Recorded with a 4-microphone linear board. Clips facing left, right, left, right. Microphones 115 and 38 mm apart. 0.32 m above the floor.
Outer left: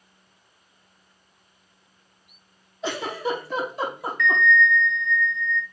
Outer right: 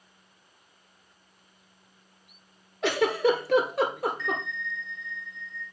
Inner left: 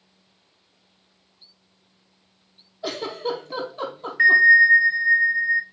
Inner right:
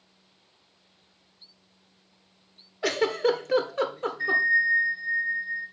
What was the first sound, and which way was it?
A giggle, 75° right (ahead or behind).